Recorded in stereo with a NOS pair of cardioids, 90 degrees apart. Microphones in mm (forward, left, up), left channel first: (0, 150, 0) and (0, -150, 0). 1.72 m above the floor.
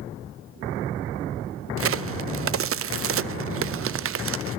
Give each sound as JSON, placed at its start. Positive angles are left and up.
{"t": 1.8, "sound": "a crack", "azimuth_deg": -45, "distance_m": 0.8}